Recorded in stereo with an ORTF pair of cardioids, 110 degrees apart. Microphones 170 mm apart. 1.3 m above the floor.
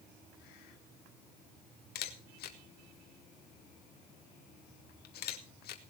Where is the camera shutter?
70° left, 2.5 m.